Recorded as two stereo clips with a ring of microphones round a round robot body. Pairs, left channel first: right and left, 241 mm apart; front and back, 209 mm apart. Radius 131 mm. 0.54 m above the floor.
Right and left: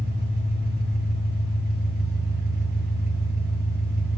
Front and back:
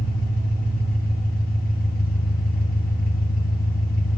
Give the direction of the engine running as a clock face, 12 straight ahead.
11 o'clock.